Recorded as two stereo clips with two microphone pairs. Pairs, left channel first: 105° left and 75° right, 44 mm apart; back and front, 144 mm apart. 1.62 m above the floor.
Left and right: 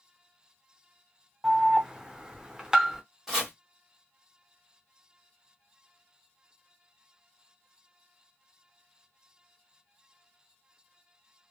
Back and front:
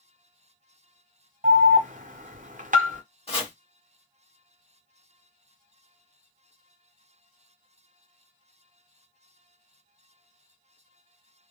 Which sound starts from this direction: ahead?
An alarm, at 1.4 s.